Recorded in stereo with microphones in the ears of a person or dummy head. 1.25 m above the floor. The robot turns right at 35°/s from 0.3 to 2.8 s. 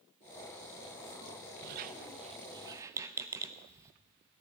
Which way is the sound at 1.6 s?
55° right (ahead or behind).